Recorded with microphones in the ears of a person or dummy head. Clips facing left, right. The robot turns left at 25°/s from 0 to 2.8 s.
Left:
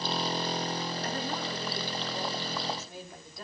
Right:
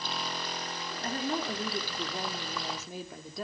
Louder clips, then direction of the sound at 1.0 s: Right 2 dB; 25° right.